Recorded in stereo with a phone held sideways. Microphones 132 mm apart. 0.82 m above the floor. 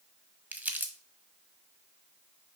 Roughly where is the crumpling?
Centre.